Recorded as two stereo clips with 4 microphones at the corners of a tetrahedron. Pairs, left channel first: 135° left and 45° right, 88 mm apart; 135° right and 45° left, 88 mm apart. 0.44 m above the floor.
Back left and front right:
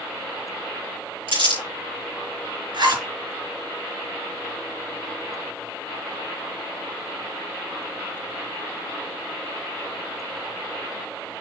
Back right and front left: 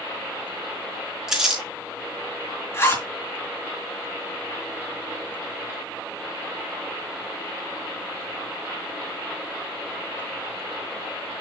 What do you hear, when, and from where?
1.3 s crumpling: 40° right, 5 m
2.7 s a zipper: 80° right, 4 m